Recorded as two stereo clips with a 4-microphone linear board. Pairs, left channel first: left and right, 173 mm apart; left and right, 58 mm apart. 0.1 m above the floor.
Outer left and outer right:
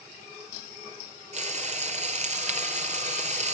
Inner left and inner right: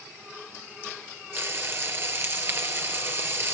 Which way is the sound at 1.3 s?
45° right (ahead or behind).